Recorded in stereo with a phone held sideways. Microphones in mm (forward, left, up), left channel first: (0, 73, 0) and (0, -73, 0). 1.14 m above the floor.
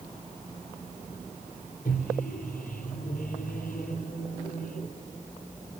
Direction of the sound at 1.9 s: 85° left.